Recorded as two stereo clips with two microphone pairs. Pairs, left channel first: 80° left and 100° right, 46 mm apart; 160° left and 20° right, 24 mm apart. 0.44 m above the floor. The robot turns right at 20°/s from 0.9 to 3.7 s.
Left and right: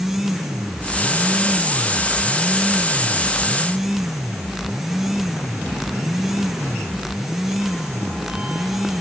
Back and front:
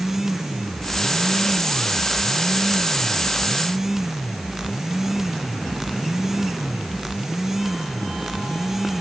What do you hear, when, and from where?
Only background noise.